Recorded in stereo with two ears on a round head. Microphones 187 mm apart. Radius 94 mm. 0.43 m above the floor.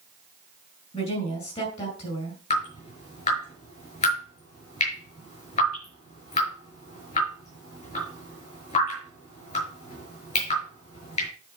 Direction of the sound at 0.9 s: 30° left (ahead or behind).